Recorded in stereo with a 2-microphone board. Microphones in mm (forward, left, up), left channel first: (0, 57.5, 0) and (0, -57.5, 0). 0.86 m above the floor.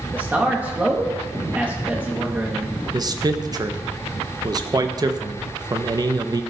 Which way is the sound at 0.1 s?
15° right (ahead or behind).